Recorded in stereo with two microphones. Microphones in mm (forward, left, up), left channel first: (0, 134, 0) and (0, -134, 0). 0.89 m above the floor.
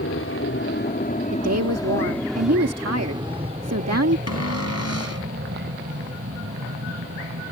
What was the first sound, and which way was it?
An aircraft, 55° left (ahead or behind).